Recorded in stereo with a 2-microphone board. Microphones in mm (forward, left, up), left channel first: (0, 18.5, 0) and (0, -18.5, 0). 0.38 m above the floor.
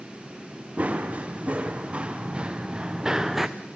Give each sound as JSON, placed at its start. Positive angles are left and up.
{"t": 0.8, "sound": "running footsteps", "side_deg": -40, "distance_m": 4.0}